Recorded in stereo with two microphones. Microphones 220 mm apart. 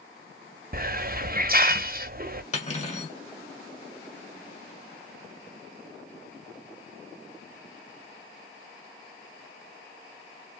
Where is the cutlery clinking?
30° left (ahead or behind), 1.7 m.